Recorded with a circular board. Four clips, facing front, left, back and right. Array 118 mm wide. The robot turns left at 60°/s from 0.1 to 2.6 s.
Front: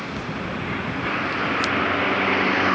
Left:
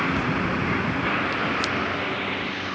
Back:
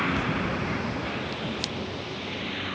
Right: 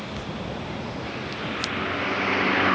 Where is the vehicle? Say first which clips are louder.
Left 9 dB, back 2 dB; 115° left; by 2.8 s 35° right.